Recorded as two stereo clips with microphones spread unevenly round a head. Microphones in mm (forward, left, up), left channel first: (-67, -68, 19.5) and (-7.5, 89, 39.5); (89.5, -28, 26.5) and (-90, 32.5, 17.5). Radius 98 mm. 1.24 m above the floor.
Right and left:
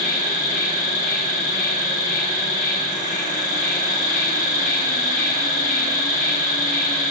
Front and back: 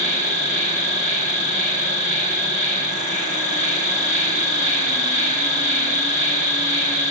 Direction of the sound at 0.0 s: 75° right.